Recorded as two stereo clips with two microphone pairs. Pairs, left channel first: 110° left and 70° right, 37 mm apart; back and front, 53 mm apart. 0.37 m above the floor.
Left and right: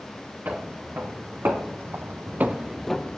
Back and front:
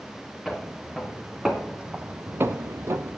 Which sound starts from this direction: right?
Footsteps, at 0.5 s.